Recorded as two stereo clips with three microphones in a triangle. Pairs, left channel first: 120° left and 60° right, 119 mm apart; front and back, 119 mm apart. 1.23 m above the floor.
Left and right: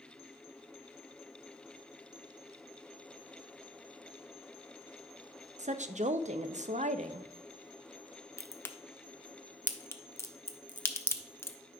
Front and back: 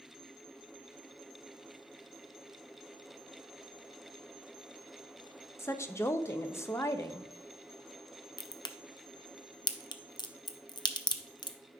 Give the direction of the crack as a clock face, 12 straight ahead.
10 o'clock.